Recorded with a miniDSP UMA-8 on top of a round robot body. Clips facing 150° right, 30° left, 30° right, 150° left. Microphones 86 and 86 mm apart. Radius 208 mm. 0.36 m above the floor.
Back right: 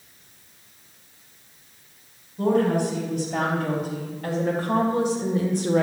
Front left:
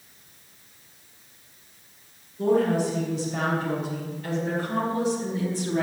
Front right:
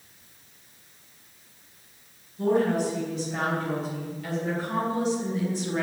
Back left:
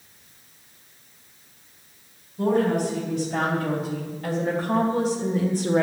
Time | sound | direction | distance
2.4 | a woman speaking | 165° right | 4.5 m